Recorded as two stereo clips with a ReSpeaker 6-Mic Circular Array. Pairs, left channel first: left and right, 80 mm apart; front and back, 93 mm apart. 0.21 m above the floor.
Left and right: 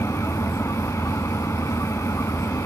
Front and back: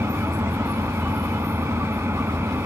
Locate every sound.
0.0 s an engine running: 125° left, 0.8 m